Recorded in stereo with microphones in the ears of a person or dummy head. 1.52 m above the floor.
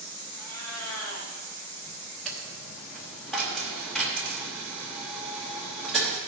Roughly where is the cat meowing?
Left.